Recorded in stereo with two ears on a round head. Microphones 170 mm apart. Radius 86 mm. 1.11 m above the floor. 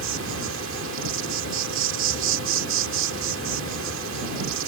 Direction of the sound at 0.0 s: 75° right (ahead or behind).